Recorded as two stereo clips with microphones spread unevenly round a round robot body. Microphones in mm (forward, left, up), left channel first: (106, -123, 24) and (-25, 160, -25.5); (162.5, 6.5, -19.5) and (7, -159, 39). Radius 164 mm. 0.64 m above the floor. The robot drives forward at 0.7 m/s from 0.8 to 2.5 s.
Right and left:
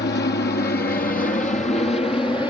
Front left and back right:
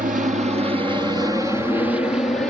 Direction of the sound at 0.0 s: 95° right.